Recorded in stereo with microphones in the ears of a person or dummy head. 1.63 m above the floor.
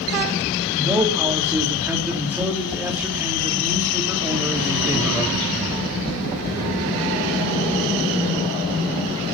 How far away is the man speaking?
About 3.5 m.